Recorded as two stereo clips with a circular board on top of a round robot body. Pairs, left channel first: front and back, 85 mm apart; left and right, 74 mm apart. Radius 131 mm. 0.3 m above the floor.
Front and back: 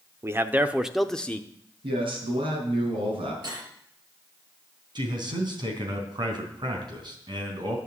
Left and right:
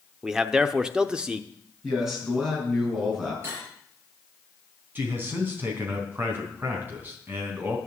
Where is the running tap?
No running tap in this recording.